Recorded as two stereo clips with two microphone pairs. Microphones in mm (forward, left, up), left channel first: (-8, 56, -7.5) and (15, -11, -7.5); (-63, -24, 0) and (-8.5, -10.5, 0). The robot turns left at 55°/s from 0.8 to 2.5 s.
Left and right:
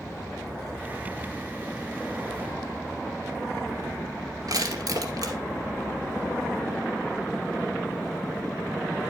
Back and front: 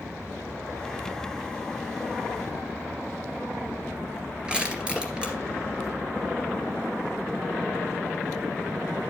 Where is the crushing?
60° right, 2.5 m.